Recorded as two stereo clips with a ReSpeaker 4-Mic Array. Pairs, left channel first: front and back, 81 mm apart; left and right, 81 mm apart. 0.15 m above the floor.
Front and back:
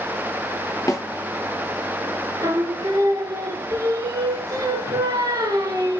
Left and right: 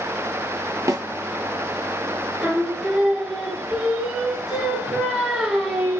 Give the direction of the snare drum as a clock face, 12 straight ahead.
1 o'clock.